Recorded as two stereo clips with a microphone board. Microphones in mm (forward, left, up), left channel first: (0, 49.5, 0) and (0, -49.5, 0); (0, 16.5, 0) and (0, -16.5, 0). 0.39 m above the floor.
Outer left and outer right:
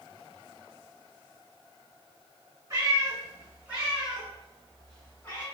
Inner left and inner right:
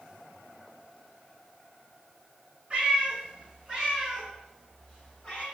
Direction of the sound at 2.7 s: 30° right (ahead or behind).